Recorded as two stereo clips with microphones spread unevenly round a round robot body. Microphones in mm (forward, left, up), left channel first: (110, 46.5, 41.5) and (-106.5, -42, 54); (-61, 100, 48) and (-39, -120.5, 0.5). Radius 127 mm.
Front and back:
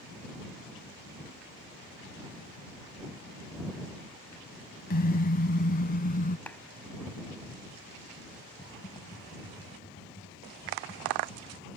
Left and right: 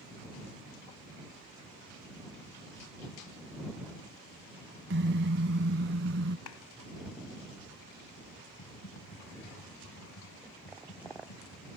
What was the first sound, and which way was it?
A car horn, 35° right.